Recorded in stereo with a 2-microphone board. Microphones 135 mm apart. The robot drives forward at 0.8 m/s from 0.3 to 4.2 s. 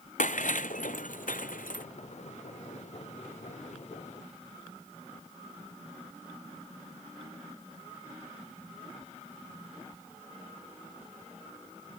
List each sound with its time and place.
0.2 s breaking glass: 70° left (ahead or behind); by 1.9 s 85° left